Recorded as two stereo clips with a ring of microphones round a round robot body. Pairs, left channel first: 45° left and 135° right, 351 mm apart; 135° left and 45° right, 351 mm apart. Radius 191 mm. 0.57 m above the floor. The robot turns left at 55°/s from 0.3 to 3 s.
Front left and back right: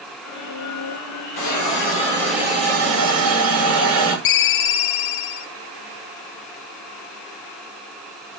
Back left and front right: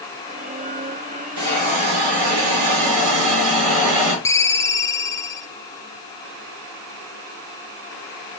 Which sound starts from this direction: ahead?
A hiss, at 1.4 s.